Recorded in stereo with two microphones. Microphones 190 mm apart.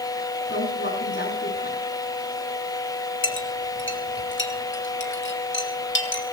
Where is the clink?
85° left, 2 m.